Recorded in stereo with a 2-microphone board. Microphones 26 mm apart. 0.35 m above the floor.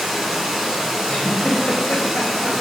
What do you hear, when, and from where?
0.0 s running water: 10° right (ahead or behind), 0.9 m
1.1 s a giggle: 50° left (ahead or behind), 0.7 m